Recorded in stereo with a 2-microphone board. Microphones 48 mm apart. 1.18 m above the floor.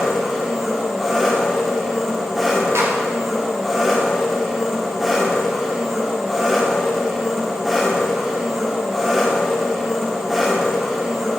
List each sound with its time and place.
0.0 s an engine running: centre (ahead or behind), 2 m
2.8 s a clap: 70° right (ahead or behind), 2.5 m